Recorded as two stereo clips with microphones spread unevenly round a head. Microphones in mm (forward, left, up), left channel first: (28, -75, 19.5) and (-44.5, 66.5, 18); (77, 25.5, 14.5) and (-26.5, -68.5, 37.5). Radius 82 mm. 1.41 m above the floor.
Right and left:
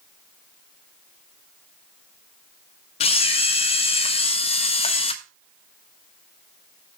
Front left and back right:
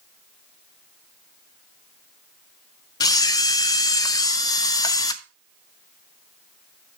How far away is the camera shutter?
About 0.6 m.